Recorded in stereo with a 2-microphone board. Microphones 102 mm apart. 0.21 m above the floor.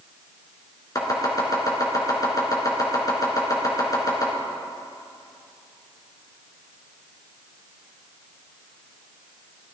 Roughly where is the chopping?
Left.